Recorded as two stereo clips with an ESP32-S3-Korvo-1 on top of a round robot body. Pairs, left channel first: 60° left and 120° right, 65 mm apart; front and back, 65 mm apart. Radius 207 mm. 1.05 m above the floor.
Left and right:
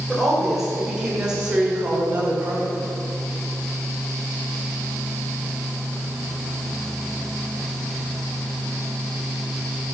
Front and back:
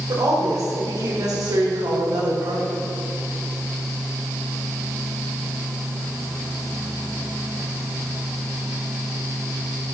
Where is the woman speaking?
150° left, 5 m; by 2.9 s 175° left, 3.5 m.